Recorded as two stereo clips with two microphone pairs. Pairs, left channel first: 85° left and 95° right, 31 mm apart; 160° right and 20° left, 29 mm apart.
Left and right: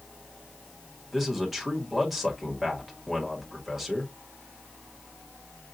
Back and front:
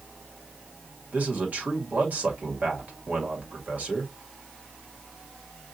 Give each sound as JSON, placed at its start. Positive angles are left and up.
{"t": 1.1, "sound": "a man speaking", "azimuth_deg": -10, "distance_m": 1.7}